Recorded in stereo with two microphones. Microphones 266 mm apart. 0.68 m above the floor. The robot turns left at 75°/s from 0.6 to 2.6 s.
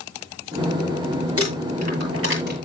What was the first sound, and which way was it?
Crumpling, 55° right (ahead or behind).